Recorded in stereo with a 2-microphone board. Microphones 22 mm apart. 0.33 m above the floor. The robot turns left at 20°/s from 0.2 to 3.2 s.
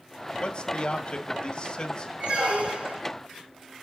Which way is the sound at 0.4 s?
90° left.